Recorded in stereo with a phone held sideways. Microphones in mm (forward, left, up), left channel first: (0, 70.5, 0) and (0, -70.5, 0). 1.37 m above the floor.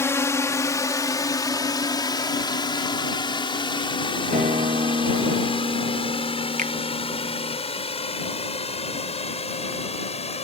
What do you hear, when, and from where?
0.0 s a drone: 20° left (ahead or behind); by 10.5 s 50° left (ahead or behind)
4.3 s a guitar: 60° right (ahead or behind)
6.6 s a finger snap: 70° right (ahead or behind)